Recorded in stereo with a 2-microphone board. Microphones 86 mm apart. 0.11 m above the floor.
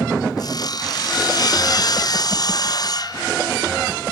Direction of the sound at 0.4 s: 50° left (ahead or behind).